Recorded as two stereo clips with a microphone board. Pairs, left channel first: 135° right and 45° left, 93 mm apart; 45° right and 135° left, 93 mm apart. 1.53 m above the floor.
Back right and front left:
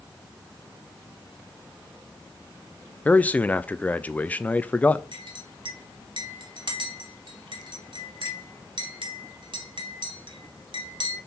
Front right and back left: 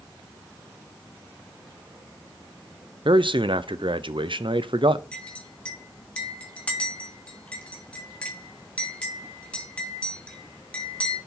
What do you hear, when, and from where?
3.0 s a man speaking: 150° left, 0.5 m
5.1 s a clink: 30° left, 1.7 m